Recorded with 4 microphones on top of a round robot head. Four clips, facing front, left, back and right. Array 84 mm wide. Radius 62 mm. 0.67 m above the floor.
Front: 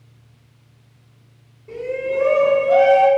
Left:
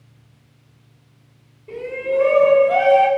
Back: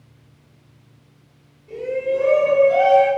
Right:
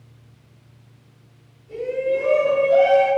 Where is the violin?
No violin in this recording.